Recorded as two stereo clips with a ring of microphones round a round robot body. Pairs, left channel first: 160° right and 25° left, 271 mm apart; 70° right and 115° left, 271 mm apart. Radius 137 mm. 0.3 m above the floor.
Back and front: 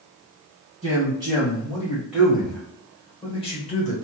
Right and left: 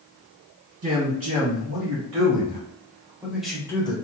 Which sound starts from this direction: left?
A man speaking, at 0.8 s.